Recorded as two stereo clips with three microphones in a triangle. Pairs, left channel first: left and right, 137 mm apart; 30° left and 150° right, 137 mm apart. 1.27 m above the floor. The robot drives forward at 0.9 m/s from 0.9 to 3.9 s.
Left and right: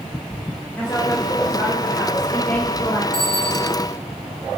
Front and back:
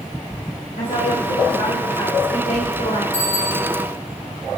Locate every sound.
0.8 s a woman speaking: 15° left, 5 m; by 3.0 s 25° left, 3 m
3.1 s a bicycle bell: 175° left, 5.5 m